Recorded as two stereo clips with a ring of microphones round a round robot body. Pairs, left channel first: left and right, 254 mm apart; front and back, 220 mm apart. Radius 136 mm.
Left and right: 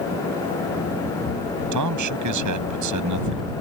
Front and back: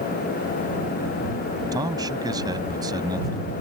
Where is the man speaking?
105° right.